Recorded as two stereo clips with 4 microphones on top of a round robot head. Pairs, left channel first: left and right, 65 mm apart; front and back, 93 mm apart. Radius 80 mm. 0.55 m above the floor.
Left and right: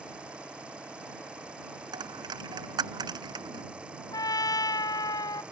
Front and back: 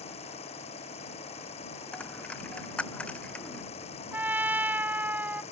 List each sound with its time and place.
0.0 s an engine running: 10° right
1.9 s a dropped coin: 80° right
4.1 s a trumpet: 110° left